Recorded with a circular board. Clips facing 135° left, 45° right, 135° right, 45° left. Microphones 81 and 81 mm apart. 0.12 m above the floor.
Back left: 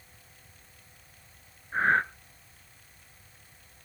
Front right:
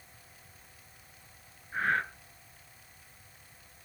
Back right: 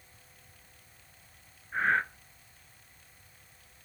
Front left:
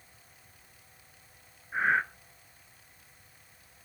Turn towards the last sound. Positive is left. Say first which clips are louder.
# back left 5 dB, front left 1 dB
turn(degrees=125)